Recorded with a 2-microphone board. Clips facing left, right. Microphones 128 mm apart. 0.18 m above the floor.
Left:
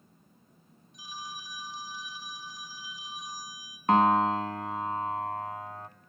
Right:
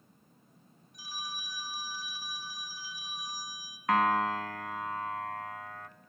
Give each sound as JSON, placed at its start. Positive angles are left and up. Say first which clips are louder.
{"t": 0.9, "sound": "a phone ringing", "louder": "left 1 dB", "side_deg": 20, "distance_m": 3.0}
{"t": 3.9, "sound": "a piano", "louder": "left 5 dB", "side_deg": 30, "distance_m": 0.9}